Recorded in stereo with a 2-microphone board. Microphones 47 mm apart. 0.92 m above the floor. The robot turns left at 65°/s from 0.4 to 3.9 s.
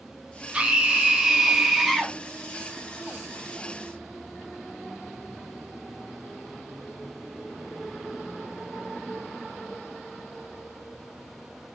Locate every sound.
0.5 s a scream: 20° right (ahead or behind), 0.7 m; by 2.2 s 5° left (ahead or behind), 0.7 m